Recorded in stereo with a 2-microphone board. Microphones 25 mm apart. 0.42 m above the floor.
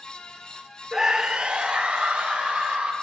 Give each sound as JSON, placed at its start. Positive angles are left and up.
{"t": 0.9, "sound": "a scream", "side_deg": -20, "distance_m": 0.7}